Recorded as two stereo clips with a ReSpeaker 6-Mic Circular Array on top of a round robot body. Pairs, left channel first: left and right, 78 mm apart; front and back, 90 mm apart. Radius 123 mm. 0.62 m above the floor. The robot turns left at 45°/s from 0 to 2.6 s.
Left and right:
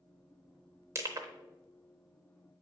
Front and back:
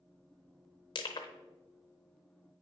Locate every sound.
0.9 s crushing: 35° right, 0.6 m; by 1.3 s 50° right, 0.6 m